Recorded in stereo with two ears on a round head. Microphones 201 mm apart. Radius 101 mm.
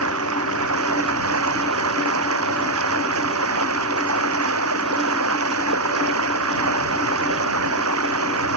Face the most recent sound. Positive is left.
turn(degrees=-70)  # may be behind; listen again after turning